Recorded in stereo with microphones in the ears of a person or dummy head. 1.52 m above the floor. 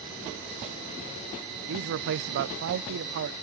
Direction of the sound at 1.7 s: 55° right (ahead or behind).